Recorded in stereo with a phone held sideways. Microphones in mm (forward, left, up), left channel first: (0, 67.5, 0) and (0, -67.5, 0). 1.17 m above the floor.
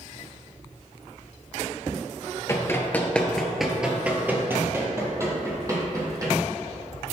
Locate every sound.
2.5 s running footsteps: 20° left (ahead or behind), 1.2 m; by 6.3 s 25° right (ahead or behind), 2.5 m